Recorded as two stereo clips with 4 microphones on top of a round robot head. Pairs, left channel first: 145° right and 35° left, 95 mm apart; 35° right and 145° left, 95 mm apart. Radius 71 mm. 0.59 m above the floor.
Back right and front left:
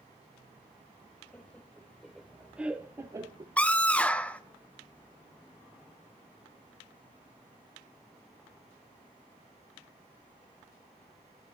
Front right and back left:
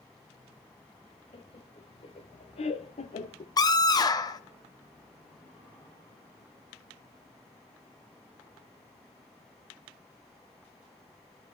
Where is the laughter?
70° right, 3 m; by 3.5 s 15° right, 1.5 m.